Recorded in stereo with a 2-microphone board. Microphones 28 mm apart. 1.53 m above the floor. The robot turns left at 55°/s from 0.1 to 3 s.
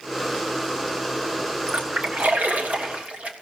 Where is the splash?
55° right (ahead or behind), 1.6 m; by 3.3 s 50° right (ahead or behind), 1.6 m.